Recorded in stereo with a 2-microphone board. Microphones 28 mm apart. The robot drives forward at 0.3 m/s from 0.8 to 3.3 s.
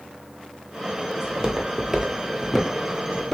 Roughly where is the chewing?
No chewing in this recording.